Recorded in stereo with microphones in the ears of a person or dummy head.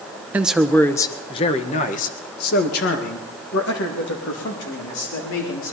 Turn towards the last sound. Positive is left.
turn(degrees=75)  # may be behind; listen again after turning